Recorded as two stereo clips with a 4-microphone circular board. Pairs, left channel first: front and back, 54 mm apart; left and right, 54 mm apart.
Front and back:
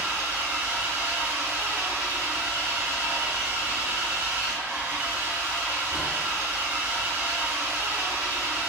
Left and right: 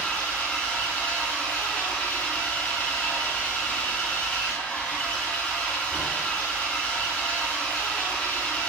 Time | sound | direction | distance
0.0 | an engine running | 155° left | 1.8 m